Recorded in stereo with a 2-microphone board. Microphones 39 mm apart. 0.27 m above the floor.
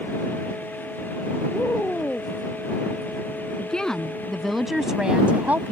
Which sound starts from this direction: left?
A woman speaking, at 1.5 s.